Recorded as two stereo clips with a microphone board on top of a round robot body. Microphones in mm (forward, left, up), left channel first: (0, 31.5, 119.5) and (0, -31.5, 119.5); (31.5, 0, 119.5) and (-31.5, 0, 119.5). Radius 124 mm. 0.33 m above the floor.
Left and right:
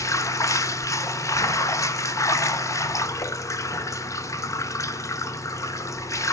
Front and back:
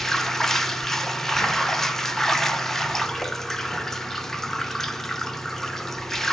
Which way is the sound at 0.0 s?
85° left.